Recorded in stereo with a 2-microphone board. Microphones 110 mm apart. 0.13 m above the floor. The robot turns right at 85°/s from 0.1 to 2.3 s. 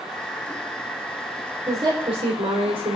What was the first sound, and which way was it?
A woman speaking, 145° right.